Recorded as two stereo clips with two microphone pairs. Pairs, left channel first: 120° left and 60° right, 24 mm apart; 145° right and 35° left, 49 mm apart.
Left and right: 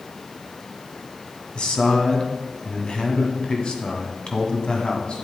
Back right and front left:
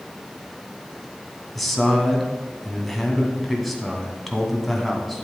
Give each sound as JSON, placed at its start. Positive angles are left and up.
{"t": 1.6, "sound": "a man speaking", "azimuth_deg": 130, "distance_m": 1.5}